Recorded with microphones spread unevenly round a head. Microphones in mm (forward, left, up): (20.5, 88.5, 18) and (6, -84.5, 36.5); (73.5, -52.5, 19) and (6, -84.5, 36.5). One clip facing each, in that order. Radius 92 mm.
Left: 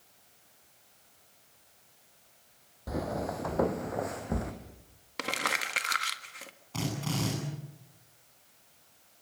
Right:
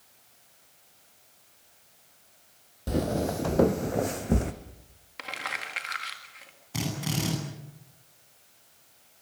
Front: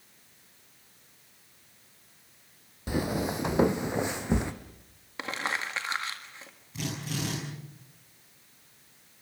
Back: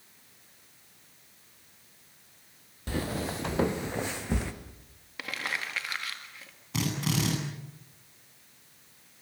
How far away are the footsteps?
About 1.4 m.